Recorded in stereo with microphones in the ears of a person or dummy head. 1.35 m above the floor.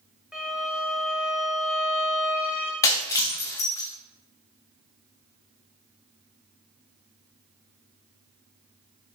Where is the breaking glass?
20° left (ahead or behind), 0.6 m.